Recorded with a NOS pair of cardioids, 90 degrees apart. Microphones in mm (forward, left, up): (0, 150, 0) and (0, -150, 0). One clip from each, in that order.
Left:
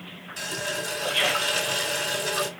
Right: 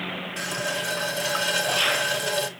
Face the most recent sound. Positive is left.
turn(degrees=-10)